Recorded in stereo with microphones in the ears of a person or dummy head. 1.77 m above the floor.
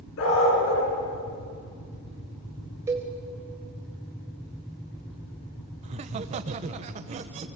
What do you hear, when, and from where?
0.2 s a dog barking: 70° left (ahead or behind), 9 m
2.9 s a cowbell: 15° right (ahead or behind), 2.5 m
5.8 s laughter: 35° right (ahead or behind), 1.1 m